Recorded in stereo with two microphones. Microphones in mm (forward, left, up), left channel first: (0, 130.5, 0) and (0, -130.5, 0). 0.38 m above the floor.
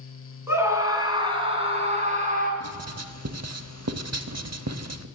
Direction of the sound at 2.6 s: 70° right (ahead or behind).